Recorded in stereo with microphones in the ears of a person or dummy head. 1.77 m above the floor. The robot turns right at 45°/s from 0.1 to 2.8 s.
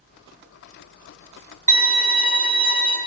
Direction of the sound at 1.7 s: 125° right.